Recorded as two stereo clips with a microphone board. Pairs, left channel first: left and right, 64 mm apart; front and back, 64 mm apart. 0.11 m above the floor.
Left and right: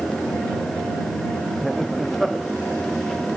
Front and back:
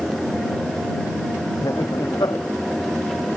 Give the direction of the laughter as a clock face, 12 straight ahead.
12 o'clock.